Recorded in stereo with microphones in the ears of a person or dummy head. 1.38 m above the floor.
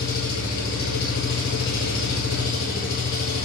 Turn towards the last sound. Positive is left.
turn(degrees=60)  # may be behind; listen again after turning